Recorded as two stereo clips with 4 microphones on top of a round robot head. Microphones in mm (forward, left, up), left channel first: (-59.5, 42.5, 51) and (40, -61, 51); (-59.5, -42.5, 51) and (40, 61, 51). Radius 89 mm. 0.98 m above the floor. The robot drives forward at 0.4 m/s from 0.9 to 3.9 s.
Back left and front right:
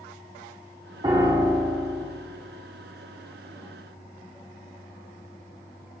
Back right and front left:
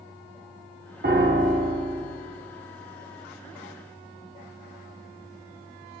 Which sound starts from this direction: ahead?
A piano, at 1.0 s.